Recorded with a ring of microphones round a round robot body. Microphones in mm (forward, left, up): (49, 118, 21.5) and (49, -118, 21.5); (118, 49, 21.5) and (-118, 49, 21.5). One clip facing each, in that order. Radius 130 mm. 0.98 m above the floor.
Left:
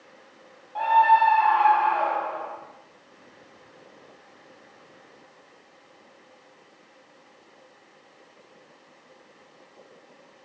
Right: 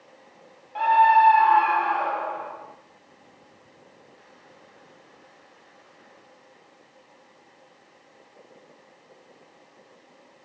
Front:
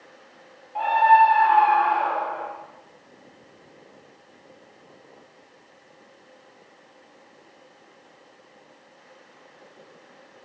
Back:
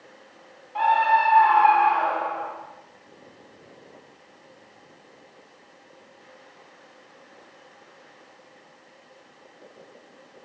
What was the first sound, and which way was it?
A scream, 125° right.